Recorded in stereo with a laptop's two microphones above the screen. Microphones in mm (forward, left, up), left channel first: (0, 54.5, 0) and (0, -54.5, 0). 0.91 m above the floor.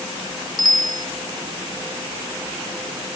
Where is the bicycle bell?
40° left (ahead or behind).